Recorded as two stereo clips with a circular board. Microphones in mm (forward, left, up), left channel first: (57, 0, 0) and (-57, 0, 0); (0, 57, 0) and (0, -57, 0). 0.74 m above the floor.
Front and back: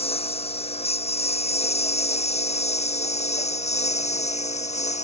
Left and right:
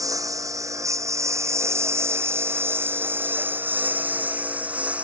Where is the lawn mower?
30° right; by 5.0 s 10° right.